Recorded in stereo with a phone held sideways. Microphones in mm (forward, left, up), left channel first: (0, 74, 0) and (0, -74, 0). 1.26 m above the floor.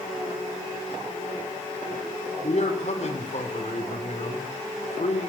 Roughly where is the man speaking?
Left.